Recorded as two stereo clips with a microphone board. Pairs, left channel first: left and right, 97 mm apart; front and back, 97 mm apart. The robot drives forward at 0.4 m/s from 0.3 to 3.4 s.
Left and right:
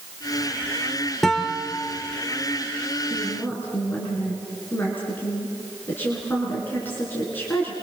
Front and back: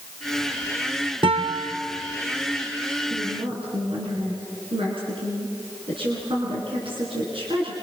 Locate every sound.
1.2 s a guitar: 175° left, 1.7 m
3.1 s a woman speaking: 160° left, 5 m